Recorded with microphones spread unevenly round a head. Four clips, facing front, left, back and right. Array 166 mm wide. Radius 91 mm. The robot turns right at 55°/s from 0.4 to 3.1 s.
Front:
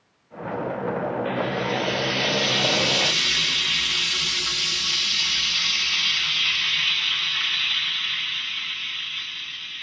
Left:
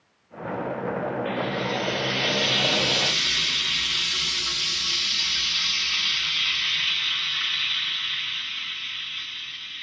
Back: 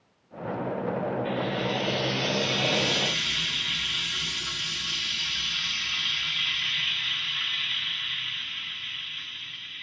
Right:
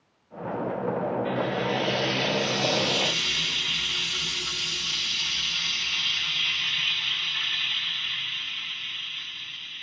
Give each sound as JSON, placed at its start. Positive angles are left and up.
{"t": 1.2, "sound": "frying", "azimuth_deg": -110, "distance_m": 0.9}